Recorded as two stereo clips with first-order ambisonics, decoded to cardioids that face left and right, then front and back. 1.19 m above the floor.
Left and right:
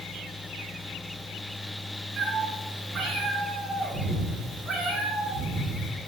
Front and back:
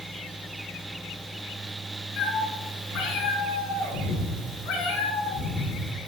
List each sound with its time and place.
2.2 s a cat meowing: 20° right, 7 m; by 5.9 s 10° left, 7 m